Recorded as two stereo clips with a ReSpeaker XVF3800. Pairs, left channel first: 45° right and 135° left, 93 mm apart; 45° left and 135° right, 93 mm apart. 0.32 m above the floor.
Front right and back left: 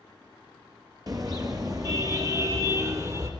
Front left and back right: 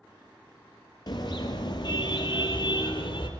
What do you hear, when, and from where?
1.1 s a car horn: 85° left, 4.5 m; by 3.3 s 80° left, 5.5 m